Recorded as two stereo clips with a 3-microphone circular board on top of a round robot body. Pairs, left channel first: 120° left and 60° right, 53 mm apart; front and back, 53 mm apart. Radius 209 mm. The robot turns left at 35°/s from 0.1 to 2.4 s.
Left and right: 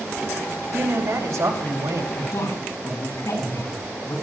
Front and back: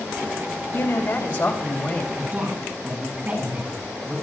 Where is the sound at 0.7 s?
15° right, 2.5 m; by 2.1 s 65° right, 2.5 m.